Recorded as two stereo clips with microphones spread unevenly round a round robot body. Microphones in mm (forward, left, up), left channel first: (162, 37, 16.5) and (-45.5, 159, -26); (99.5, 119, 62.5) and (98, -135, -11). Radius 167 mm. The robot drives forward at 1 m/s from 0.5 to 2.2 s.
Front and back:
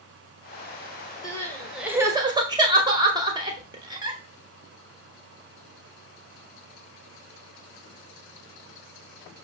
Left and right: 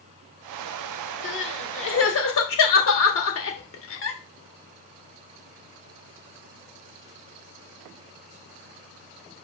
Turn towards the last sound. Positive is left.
turn(degrees=110)